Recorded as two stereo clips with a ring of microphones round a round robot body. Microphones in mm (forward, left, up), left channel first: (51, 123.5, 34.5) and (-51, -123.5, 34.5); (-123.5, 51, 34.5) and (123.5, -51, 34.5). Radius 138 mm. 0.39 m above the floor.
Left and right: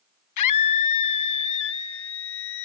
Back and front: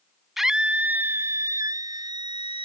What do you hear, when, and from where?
0.4 s a scream: 65° left; by 2.6 s 50° left